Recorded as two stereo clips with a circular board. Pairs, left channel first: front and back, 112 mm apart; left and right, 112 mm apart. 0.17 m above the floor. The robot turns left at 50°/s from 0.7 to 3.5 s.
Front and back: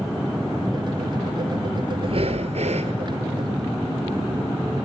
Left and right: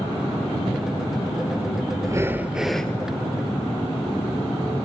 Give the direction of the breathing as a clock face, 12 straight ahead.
5 o'clock.